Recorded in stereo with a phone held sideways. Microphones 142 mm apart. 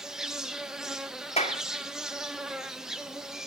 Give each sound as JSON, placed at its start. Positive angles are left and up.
{"t": 0.0, "sound": "an insect", "side_deg": -5, "distance_m": 0.9}
{"t": 1.4, "sound": "a clap", "side_deg": 45, "distance_m": 2.0}